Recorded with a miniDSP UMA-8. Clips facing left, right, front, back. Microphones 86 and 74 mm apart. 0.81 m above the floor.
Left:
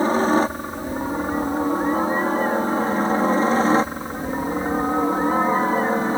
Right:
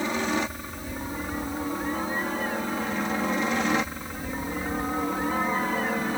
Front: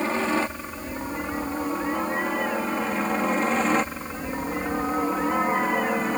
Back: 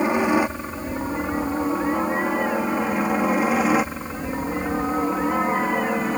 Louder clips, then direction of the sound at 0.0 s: Left 9 dB, back 5 dB; 115° left.